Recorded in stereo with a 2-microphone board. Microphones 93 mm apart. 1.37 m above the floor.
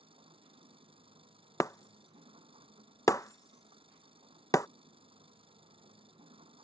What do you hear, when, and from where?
0.0 s an engine running: 75° right (ahead or behind)
1.6 s breaking glass: 35° left (ahead or behind)